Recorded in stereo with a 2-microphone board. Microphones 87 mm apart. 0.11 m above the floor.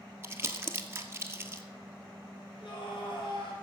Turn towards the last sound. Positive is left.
turn(degrees=70)  # may be behind; listen again after turning